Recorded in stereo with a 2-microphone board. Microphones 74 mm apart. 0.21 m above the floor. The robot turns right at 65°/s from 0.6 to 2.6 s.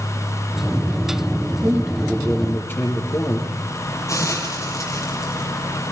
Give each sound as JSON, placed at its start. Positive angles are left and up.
{"t": 1.6, "sound": "a man speaking", "azimuth_deg": -35, "distance_m": 7.5}
{"t": 4.1, "sound": "a hiss", "side_deg": 45, "distance_m": 6.5}